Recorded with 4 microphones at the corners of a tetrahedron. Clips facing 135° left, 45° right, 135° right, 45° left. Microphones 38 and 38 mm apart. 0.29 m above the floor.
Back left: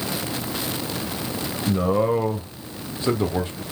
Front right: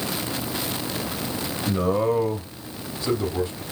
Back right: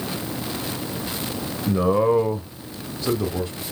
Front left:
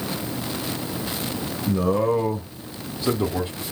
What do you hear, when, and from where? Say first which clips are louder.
1.7 s a man speaking: back left 1 dB, back right 2 dB; 130° right, 0.9 m; by 3.6 s 105° left, 1.1 m